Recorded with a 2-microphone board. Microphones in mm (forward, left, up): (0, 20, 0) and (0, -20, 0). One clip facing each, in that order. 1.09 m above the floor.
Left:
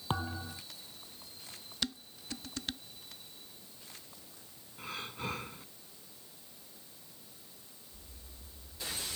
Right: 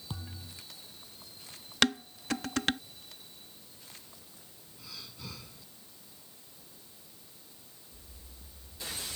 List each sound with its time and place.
0.1 s a thud: 55° left (ahead or behind)
1.8 s dishes clattering: 75° right (ahead or behind)
4.8 s breathing: 45° left (ahead or behind)